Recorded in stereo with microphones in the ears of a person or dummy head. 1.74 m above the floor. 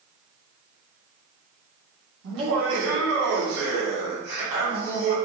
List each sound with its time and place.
2.2 s laughter: 70° right (ahead or behind), 1.5 m; by 5.2 s 45° right (ahead or behind), 1.6 m